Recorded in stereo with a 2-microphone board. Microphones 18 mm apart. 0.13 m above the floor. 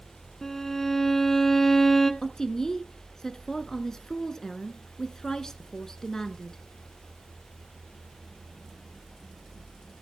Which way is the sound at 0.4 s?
20° left (ahead or behind).